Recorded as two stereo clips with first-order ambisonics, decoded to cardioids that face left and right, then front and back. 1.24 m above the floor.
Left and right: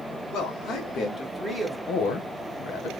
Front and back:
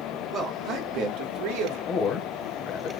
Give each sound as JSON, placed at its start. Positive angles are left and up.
{"t": 0.3, "sound": "a man speaking", "azimuth_deg": 120, "distance_m": 1.4}
{"t": 1.9, "sound": "a man speaking", "azimuth_deg": 55, "distance_m": 0.8}